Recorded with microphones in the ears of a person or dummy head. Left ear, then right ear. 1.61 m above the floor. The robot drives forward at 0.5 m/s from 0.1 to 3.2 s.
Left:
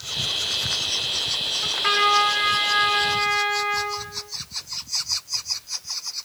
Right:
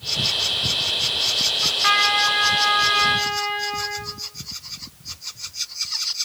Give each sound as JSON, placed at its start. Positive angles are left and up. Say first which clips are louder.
{"t": 1.6, "sound": "a trumpet", "louder": "right 1 dB", "side_deg": -25, "distance_m": 4.0}